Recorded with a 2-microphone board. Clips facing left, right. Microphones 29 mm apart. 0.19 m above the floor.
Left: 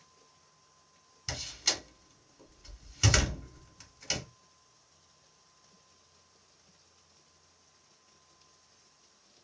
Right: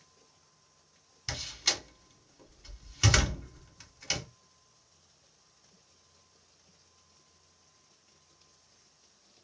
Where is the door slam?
10° right (ahead or behind), 1.1 m.